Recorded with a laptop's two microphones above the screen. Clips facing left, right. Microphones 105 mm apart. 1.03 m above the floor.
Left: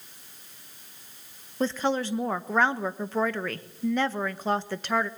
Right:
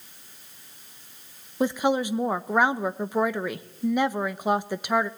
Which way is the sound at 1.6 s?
15° right (ahead or behind).